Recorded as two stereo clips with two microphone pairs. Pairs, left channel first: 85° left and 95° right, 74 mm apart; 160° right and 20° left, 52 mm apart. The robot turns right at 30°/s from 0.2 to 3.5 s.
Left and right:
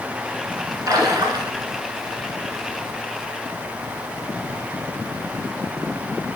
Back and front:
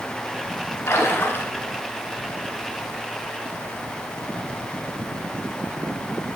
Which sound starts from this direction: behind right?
A splash, at 0.9 s.